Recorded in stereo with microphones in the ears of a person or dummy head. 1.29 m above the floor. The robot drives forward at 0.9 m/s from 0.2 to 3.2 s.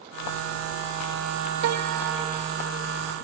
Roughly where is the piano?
Right.